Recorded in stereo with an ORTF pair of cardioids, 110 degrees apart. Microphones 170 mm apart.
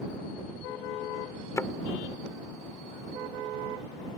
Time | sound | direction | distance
1.6 | a thud | 15° left | ?